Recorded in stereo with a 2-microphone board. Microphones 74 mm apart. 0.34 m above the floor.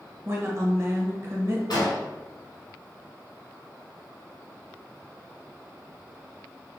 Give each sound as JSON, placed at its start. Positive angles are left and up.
{"t": 0.2, "sound": "a woman speaking", "side_deg": -40, "distance_m": 1.1}
{"t": 1.7, "sound": "an explosion", "side_deg": 75, "distance_m": 1.9}